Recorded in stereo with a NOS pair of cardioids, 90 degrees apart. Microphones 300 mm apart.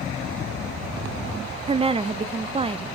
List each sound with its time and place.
1.7 s a woman speaking: 20° right, 0.6 m